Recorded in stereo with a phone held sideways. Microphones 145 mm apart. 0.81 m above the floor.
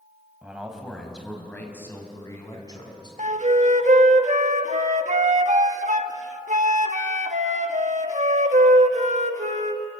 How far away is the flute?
About 1.2 m.